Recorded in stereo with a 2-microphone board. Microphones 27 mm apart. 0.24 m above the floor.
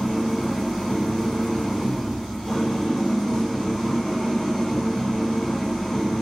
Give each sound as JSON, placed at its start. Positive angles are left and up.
{"t": 0.0, "sound": "an engine running", "side_deg": 5, "distance_m": 5.5}